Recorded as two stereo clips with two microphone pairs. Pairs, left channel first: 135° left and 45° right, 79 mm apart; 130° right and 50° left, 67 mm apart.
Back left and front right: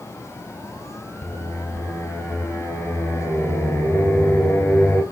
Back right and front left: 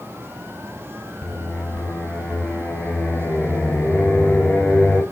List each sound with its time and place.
1.2 s singing: 175° left, 0.8 m